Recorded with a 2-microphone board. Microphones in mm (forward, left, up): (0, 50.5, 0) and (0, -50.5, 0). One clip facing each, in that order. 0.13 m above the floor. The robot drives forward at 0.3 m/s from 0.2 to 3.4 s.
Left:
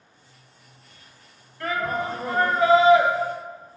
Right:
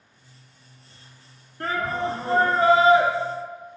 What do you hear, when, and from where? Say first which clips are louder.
1.6 s a shout: even; 45° right (ahead or behind), 1.5 m